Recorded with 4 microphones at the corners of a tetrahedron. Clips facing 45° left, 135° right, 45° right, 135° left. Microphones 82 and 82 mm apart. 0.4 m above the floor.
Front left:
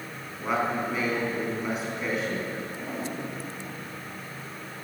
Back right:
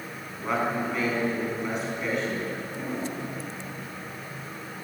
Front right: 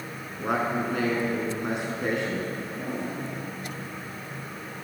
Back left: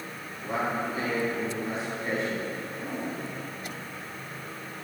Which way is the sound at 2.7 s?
80° right.